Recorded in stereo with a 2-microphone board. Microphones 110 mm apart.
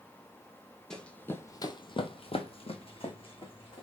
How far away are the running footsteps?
About 0.7 m.